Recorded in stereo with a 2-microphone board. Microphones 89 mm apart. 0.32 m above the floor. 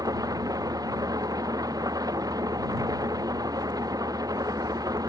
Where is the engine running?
45° right (ahead or behind).